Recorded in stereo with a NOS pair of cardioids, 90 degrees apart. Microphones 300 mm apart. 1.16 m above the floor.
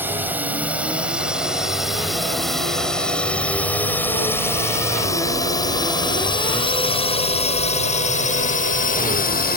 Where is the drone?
5° right; by 9.6 s 30° left.